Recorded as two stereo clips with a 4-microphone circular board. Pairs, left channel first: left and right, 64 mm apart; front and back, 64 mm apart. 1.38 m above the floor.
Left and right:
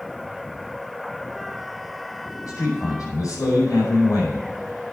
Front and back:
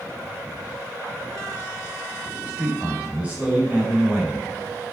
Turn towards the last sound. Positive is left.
turn(degrees=105)